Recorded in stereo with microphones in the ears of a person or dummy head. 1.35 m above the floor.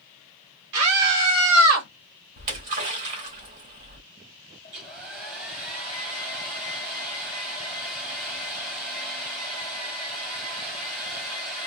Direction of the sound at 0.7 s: 70° right (ahead or behind).